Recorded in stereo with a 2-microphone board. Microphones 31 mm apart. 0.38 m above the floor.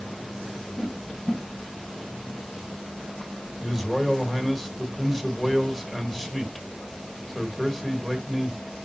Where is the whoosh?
25° left (ahead or behind), 2 m.